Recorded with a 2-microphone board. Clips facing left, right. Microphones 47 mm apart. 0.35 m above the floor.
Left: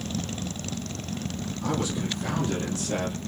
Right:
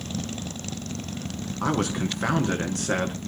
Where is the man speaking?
70° right (ahead or behind), 5 m.